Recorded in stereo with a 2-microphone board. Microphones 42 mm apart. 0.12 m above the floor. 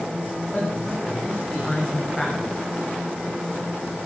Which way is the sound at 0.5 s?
10° left (ahead or behind).